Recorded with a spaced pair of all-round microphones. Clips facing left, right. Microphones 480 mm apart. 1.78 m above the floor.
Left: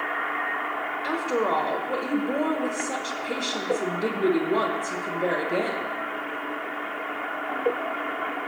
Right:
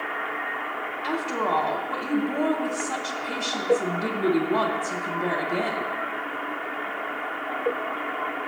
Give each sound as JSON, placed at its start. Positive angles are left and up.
{"t": 1.0, "sound": "a woman speaking", "side_deg": -15, "distance_m": 1.1}